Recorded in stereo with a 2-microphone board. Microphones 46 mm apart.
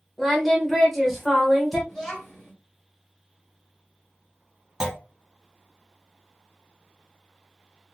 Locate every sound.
0.2 s singing: centre (ahead or behind), 1.2 m
1.9 s a child speaking: 10° left (ahead or behind), 1.8 m
4.8 s a clunk: 10° right (ahead or behind), 0.6 m